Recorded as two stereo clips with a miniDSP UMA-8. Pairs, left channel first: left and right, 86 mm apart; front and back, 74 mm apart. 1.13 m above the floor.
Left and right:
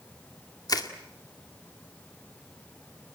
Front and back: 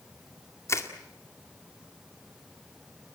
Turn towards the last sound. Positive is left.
turn(degrees=50)